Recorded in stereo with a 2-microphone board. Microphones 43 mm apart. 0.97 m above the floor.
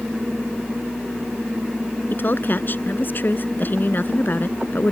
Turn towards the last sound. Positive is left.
turn(degrees=50)  # may be behind; listen again after turning